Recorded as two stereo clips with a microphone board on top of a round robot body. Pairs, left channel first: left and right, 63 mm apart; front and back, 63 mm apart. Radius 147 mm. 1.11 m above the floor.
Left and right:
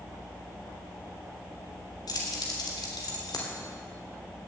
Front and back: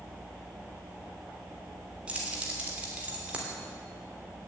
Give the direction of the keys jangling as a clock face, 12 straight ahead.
8 o'clock.